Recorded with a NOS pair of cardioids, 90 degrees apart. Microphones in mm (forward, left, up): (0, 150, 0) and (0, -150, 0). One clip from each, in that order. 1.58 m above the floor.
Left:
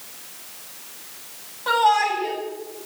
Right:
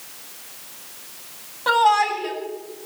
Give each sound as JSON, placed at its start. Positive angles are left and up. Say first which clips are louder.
{"t": 1.7, "sound": "a shout", "louder": "right 1 dB", "azimuth_deg": -35, "distance_m": 9.0}